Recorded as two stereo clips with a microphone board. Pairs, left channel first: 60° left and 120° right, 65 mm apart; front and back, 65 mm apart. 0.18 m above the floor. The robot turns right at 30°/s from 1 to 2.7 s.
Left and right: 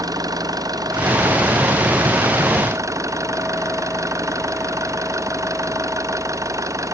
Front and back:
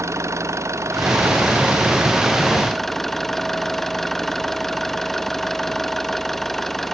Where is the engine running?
135° right; by 6.9 s 85° right.